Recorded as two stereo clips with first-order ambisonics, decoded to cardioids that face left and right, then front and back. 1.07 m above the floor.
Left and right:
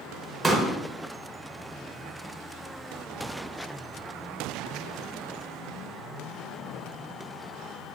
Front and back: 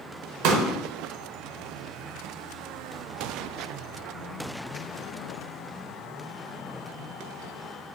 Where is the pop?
175° right, 0.6 m.